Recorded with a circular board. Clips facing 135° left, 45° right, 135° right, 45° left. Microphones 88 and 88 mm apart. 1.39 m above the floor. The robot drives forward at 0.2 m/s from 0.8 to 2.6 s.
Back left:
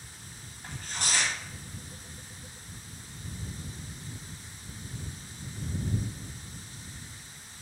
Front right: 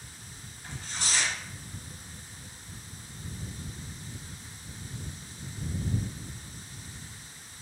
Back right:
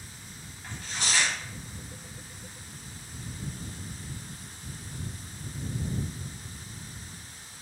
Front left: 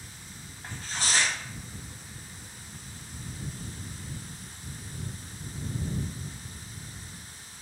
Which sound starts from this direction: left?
Tearing paper, at 0.6 s.